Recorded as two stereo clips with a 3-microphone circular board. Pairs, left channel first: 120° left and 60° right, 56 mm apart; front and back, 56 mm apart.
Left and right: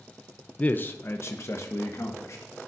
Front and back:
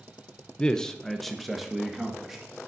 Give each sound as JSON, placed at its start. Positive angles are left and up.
{"t": 0.6, "sound": "a man speaking", "azimuth_deg": 65, "distance_m": 0.6}